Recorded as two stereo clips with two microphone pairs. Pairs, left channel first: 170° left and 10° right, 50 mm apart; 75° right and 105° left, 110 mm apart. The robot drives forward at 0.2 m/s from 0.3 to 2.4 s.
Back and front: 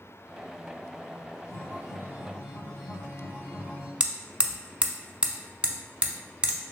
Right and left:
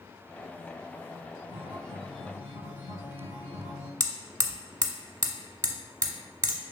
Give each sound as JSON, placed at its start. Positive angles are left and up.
{"t": 1.5, "sound": "a guitar", "azimuth_deg": -165, "distance_m": 1.8}
{"t": 4.0, "sound": "hammering", "azimuth_deg": 55, "distance_m": 0.6}